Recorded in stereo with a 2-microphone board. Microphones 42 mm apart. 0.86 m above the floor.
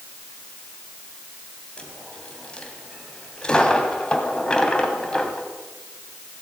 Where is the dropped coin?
20° left (ahead or behind), 3 m.